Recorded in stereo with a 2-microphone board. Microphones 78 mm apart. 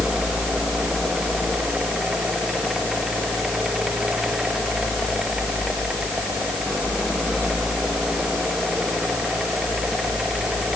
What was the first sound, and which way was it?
Only background noise.